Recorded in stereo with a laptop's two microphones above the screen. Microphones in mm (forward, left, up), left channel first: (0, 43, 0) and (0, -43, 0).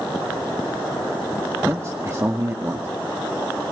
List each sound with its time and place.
1.7 s a man speaking: 30° right (ahead or behind), 1.9 m